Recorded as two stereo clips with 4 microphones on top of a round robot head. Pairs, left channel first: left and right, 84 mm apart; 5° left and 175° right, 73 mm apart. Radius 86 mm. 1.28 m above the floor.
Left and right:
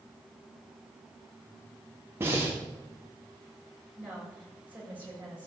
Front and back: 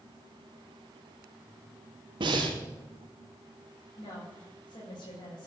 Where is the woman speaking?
20° right, 7 m.